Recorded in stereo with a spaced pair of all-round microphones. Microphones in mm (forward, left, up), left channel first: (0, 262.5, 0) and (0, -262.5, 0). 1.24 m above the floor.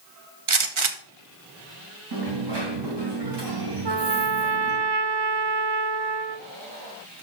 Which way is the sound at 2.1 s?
50° right (ahead or behind).